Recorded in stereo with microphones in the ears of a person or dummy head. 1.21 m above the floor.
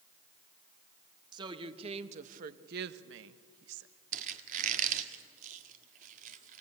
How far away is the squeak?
About 1.4 m.